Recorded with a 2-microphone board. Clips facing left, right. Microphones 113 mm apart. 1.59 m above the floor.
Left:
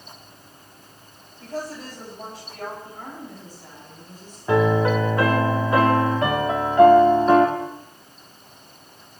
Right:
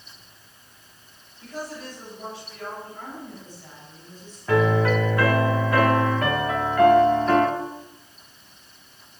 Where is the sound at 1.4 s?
45° left (ahead or behind), 8.5 m; by 2.7 s 50° left (ahead or behind), 8.5 m.